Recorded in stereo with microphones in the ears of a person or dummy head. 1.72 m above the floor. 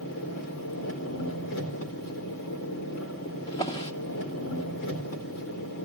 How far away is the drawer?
About 2.5 m.